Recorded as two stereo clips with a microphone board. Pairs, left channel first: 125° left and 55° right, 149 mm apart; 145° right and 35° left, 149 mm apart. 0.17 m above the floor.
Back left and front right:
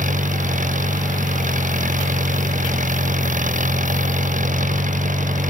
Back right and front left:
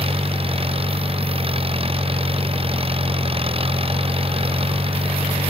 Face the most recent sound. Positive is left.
turn(degrees=-20)